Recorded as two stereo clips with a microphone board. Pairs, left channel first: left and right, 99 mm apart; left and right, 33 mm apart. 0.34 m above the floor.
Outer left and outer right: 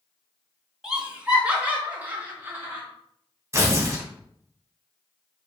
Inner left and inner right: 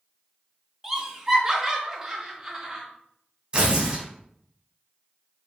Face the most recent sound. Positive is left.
turn(degrees=-30)  # may be behind; listen again after turning